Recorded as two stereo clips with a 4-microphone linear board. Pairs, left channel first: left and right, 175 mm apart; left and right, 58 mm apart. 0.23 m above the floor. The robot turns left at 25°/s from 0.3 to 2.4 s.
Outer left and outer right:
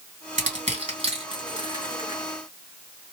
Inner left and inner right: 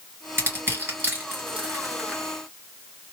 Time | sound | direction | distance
0.4 | crushing | 40° right (ahead or behind) | 2 m